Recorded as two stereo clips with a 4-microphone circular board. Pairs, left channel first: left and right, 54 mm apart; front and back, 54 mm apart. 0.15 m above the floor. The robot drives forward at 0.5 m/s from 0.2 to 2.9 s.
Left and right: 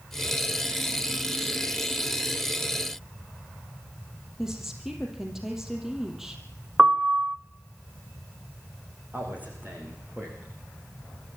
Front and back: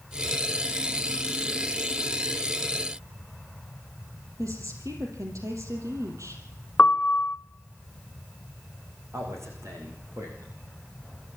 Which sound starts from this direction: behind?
A woman speaking, at 4.4 s.